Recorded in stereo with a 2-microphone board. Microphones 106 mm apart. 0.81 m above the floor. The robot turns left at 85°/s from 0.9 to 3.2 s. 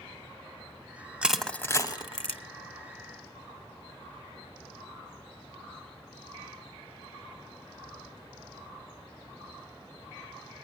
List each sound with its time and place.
1.2 s crushing: 10° right (ahead or behind), 1.1 m; by 2.4 s 60° left (ahead or behind), 1.1 m